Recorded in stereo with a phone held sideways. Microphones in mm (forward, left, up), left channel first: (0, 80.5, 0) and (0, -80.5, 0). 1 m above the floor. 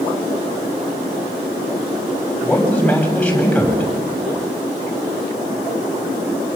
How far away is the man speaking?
About 7.5 m.